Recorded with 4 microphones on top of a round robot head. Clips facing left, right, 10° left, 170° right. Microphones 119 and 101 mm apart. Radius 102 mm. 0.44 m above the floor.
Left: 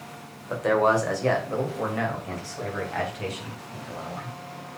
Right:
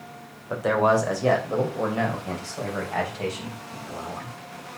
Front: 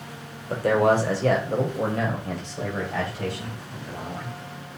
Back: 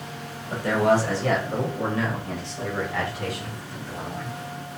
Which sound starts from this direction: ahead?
A man speaking, at 0.5 s.